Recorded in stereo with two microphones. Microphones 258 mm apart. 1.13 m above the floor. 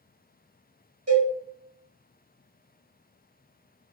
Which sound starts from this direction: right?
A cowbell, at 1.1 s.